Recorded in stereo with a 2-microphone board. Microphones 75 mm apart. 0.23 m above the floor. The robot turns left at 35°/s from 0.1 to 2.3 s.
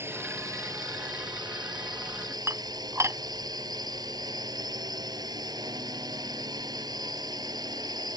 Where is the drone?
35° right; by 8.2 s 110° right.